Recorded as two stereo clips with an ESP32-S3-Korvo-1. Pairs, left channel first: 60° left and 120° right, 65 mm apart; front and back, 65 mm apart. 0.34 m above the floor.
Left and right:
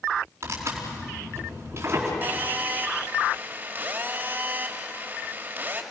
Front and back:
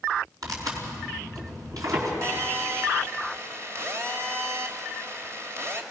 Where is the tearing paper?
165° right, 4.5 m.